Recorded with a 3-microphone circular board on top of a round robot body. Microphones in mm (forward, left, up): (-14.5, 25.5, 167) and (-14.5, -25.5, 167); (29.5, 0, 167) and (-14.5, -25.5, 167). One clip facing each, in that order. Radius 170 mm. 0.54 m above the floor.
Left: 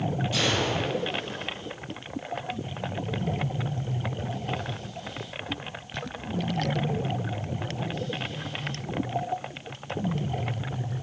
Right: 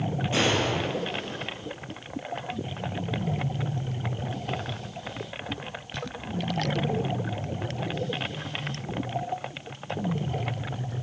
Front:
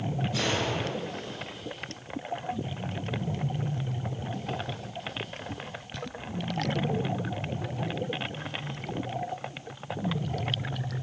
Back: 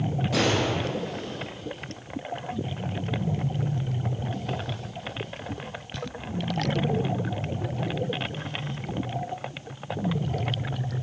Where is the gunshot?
150° right, 7 m.